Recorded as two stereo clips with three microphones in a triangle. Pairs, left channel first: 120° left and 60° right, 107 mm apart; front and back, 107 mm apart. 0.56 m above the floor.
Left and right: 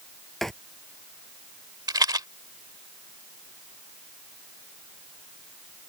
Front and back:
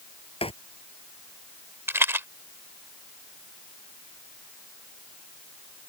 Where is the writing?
35° left.